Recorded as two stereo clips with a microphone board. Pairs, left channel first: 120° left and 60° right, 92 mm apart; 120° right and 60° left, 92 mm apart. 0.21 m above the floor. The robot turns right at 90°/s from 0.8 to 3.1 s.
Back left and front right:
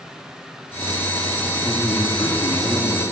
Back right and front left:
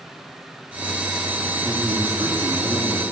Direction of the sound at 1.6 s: 30° left.